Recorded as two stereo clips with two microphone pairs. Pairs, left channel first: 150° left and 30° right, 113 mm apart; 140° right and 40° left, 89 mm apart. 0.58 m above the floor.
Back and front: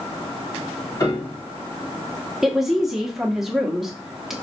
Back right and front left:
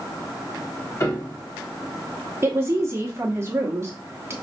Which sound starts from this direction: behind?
A piano, at 1.0 s.